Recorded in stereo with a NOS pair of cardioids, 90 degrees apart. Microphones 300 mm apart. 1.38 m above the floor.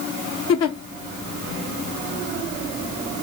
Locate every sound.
0.5 s a giggle: 60° left, 1.2 m